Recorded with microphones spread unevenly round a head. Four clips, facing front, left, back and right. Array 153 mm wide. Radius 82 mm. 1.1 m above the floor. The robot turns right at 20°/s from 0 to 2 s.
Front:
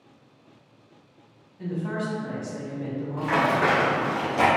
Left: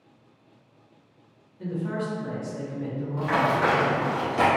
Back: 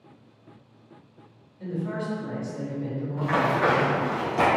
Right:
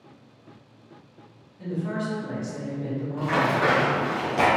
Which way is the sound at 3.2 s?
15° right.